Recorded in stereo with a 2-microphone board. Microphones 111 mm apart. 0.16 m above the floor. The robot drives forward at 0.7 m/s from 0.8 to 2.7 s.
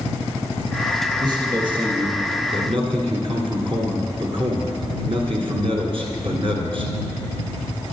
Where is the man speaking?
40° right (ahead or behind), 2 m; by 6.9 s 55° right (ahead or behind), 1.7 m.